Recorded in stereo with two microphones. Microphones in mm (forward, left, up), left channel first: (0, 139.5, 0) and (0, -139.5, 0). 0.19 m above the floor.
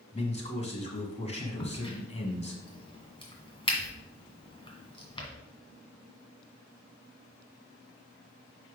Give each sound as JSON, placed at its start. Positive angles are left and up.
{"t": 0.1, "sound": "a man speaking", "side_deg": 25, "distance_m": 1.5}
{"t": 1.6, "sound": "a crack", "side_deg": 15, "distance_m": 1.9}